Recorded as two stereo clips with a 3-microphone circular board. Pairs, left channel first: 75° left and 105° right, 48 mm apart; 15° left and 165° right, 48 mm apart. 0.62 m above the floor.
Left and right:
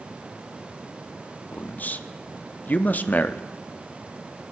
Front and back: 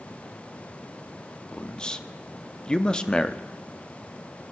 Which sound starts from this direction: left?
A man speaking, at 1.5 s.